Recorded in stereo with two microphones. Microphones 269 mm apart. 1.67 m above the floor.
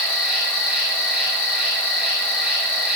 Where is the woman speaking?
I don't hear a woman speaking.